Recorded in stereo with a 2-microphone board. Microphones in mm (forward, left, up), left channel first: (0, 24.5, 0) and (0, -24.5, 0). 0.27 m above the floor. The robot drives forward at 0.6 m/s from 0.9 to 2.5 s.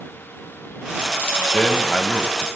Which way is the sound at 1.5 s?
30° left (ahead or behind).